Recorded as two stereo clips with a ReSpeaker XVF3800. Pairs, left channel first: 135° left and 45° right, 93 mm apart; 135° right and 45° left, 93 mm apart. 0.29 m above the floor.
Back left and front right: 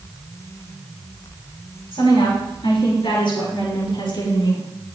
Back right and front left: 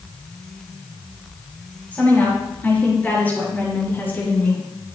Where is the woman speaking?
150° left, 6 m; by 4.6 s 155° left, 4.5 m.